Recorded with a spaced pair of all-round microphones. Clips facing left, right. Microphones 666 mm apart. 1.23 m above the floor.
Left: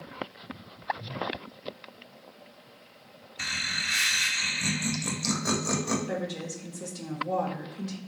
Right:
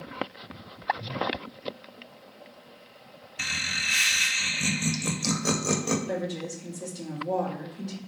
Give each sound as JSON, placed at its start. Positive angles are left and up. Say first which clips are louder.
{"t": 3.4, "sound": "laughter", "louder": "right 1 dB", "side_deg": -60, "distance_m": 0.7}
{"t": 6.1, "sound": "a woman speaking", "louder": "right 2 dB", "side_deg": 35, "distance_m": 0.8}